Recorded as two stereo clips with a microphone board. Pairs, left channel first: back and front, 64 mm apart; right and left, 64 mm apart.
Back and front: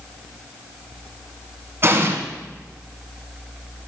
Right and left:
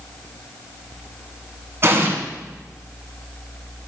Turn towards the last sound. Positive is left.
turn(degrees=45)